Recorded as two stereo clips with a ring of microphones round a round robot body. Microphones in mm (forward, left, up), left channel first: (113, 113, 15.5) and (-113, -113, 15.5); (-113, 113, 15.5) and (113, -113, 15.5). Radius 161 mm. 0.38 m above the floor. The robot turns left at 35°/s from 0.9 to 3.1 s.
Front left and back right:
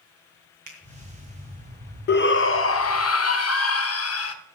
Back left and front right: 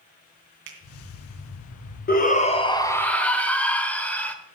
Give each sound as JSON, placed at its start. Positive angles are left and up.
{"t": 0.7, "sound": "a finger snap", "azimuth_deg": -100, "distance_m": 2.5}
{"t": 2.1, "sound": "a shout", "azimuth_deg": 85, "distance_m": 1.1}